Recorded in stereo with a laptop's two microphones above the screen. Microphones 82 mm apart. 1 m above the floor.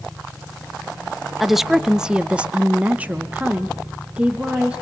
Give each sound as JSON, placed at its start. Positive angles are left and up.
{"t": 1.4, "sound": "a woman speaking", "side_deg": -5, "distance_m": 0.8}